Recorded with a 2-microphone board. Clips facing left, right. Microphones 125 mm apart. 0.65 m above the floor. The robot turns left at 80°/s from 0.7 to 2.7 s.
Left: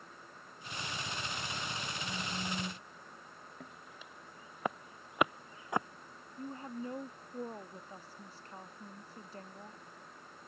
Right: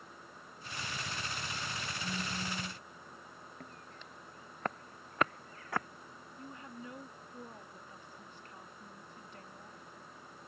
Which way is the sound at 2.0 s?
160° right.